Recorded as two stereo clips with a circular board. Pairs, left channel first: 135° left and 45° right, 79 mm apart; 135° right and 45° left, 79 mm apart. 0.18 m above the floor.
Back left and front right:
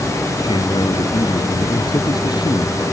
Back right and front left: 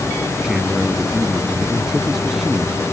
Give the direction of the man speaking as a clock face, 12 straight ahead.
8 o'clock.